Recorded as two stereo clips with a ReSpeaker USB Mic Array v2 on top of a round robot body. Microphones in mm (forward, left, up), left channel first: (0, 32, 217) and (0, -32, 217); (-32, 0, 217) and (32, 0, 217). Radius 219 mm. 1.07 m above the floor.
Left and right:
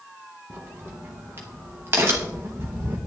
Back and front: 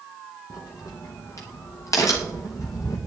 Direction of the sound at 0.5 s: 145° right.